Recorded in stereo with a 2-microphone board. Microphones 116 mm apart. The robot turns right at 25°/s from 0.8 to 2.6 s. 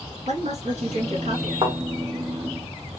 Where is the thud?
45° right (ahead or behind), 1.4 m.